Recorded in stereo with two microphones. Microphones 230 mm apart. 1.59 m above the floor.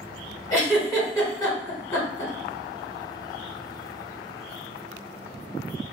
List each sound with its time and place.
0.5 s a giggle: 10° left (ahead or behind), 1.7 m